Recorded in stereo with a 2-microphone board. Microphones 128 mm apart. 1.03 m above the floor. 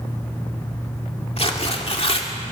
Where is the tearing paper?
50° left (ahead or behind), 2.5 m.